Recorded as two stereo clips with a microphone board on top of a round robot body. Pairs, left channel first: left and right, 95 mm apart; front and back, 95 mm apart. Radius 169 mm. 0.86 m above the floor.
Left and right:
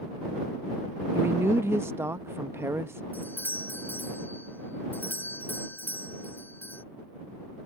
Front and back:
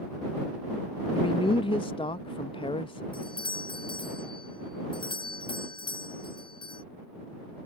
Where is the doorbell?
20° left.